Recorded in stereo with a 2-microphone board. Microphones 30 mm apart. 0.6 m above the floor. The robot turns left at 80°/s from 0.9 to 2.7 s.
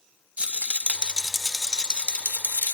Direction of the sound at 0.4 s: 135° right.